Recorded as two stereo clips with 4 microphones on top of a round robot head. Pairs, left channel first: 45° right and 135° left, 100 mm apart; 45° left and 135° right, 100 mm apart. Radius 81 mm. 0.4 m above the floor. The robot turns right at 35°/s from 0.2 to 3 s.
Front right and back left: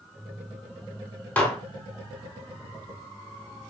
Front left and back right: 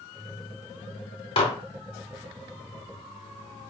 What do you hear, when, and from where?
1.4 s dishes clattering: 25° left, 1.1 m; by 1.6 s 30° left, 1.1 m